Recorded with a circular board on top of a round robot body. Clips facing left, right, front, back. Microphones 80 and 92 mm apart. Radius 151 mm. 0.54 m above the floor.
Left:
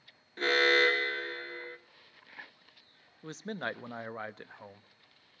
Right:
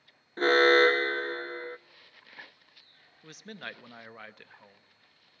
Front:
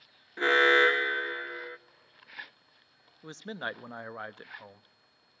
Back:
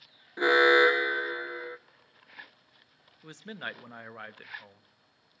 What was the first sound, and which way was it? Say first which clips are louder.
An alarm: right 6 dB, back 2 dB; 110° right.